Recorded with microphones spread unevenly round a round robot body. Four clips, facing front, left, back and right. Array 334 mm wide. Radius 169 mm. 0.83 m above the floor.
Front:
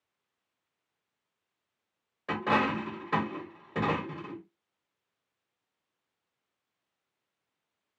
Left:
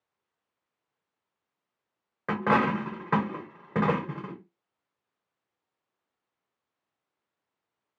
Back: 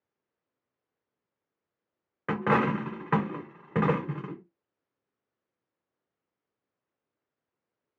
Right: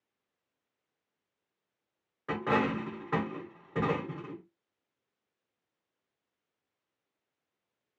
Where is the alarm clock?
I don't hear an alarm clock.